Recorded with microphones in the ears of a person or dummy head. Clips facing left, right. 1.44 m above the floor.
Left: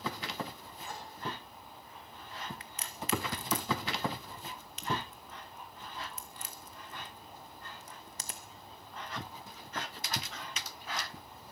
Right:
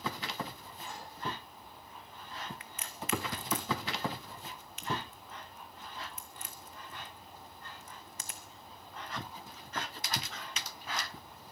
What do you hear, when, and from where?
0.8 s a microwave: 65° left (ahead or behind), 6.5 m
2.6 s a crack: 35° left (ahead or behind), 0.8 m